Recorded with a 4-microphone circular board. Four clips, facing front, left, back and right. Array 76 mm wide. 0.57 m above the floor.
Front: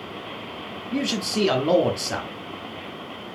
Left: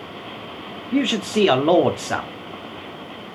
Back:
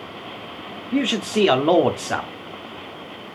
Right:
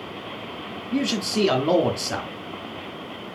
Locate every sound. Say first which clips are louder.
0.9 s a man speaking: left 4 dB, back 5 dB; 135° left, 0.6 m